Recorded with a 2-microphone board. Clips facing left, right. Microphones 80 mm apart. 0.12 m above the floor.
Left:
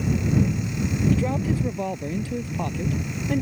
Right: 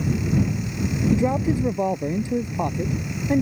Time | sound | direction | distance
1.1 | a man speaking | 20° right (ahead or behind) | ?